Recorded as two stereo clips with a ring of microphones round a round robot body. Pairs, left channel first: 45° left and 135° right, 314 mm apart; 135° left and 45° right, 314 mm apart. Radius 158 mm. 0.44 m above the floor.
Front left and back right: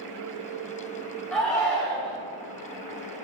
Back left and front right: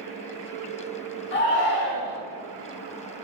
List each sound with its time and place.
1.3 s a shout: 130° left, 1.2 m